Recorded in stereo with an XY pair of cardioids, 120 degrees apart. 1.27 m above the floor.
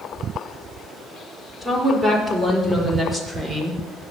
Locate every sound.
1.6 s a woman speaking: 5° right, 5 m; by 4.1 s 25° right, 6 m